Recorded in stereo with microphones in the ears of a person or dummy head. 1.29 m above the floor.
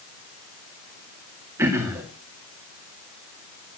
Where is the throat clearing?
15° right (ahead or behind), 2 m.